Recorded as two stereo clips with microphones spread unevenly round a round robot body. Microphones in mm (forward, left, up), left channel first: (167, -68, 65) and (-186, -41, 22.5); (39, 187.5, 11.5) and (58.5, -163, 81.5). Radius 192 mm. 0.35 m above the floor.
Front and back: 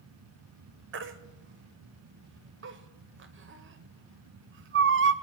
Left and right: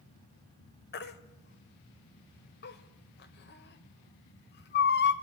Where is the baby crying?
135° left, 0.8 m.